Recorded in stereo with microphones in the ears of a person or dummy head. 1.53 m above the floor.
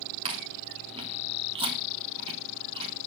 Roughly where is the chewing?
Right.